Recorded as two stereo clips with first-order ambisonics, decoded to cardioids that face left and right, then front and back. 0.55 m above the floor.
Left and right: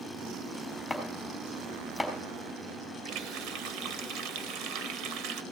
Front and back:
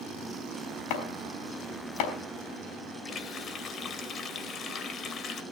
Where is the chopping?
Straight ahead, 4 m.